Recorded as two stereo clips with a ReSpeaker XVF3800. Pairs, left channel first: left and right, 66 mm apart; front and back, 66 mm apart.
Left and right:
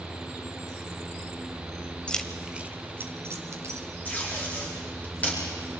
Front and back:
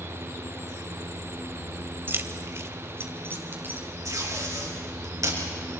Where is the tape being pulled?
150° left, 5.5 m.